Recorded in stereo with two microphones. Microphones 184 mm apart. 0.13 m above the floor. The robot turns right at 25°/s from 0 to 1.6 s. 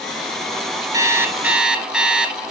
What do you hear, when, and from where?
0.9 s an alarm clock: 20° right (ahead or behind), 0.8 m; by 2.3 s 5° right (ahead or behind), 0.8 m